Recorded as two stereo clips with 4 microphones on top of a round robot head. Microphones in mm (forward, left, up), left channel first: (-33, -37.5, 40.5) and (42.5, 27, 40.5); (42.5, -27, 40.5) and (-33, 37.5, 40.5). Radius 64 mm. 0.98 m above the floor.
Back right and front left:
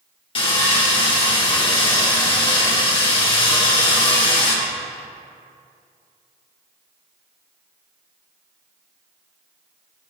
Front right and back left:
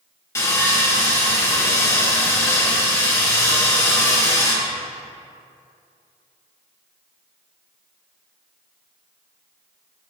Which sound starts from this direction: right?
Sawing, at 0.3 s.